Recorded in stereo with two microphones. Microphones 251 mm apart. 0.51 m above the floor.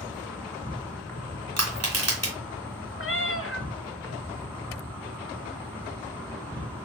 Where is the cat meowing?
55° left (ahead or behind), 0.7 m.